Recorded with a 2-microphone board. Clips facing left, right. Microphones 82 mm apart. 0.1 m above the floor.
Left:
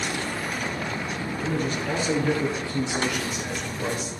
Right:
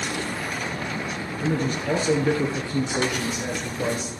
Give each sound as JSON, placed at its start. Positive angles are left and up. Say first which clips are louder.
{"t": 1.4, "sound": "a man speaking", "louder": "right 3 dB", "side_deg": -30, "distance_m": 1.4}